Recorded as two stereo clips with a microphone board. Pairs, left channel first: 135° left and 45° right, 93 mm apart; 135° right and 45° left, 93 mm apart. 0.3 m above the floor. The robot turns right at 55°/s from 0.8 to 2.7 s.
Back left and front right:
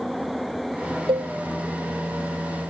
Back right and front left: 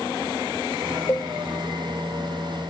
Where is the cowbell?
75° right; by 1.3 s 60° right.